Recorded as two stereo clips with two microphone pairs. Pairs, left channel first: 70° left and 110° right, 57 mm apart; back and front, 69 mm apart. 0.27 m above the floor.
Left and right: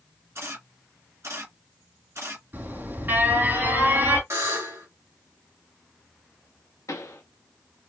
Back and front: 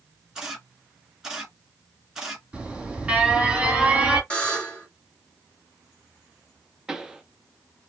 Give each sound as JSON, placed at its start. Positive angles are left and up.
{"t": 0.3, "sound": "a camera shutter", "azimuth_deg": -85, "distance_m": 1.4}
{"t": 2.5, "sound": "an alarm", "azimuth_deg": -75, "distance_m": 3.0}
{"t": 4.3, "sound": "a buzzer", "azimuth_deg": -110, "distance_m": 2.0}
{"t": 6.9, "sound": "a pop", "azimuth_deg": 80, "distance_m": 0.9}